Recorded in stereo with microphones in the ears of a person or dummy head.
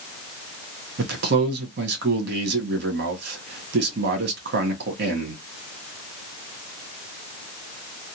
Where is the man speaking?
70° right (ahead or behind), 1.4 m.